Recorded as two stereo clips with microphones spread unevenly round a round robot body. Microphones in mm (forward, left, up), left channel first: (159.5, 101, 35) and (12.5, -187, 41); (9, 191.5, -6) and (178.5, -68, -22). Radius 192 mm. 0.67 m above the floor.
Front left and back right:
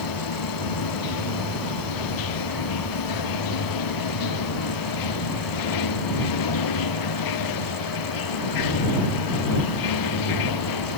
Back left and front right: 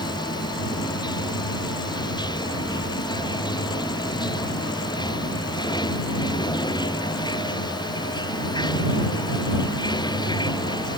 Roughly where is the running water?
Ahead left.